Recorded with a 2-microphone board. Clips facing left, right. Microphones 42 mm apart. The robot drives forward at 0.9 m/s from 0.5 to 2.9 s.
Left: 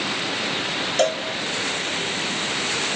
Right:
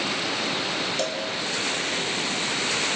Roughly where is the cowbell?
Left.